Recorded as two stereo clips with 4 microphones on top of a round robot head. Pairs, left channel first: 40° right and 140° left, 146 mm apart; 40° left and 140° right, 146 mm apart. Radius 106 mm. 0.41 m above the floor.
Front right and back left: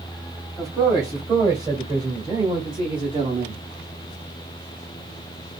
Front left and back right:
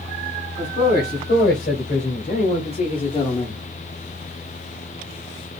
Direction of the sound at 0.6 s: 70° left.